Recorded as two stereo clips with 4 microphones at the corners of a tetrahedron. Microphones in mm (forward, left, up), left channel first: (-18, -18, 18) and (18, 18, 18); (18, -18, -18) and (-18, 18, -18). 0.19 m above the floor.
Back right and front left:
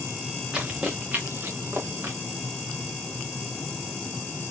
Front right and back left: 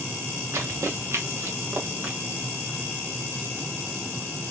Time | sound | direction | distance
0.5 | running footsteps | 115° left | 2.5 m